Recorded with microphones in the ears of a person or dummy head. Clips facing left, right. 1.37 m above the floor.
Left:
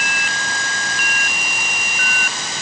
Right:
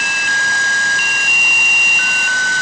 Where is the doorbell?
No doorbell in this recording.